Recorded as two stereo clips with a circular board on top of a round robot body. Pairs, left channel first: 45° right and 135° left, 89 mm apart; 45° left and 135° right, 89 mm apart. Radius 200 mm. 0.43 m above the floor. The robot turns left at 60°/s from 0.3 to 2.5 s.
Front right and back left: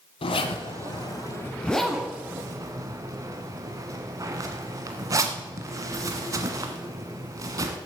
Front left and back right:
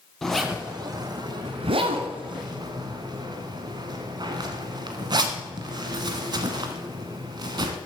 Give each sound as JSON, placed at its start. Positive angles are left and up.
{"t": 0.2, "sound": "a zipper", "azimuth_deg": -40, "distance_m": 1.3}